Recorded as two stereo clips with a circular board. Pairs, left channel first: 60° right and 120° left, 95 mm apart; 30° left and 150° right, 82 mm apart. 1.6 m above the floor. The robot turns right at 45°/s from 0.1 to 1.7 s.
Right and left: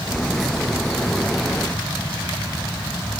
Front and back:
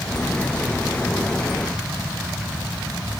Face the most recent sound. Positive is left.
No sound to turn to.